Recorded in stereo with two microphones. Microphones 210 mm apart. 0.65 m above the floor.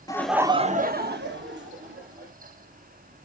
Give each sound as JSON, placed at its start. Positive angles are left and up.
{"t": 0.1, "sound": "laughter", "side_deg": 20, "distance_m": 0.5}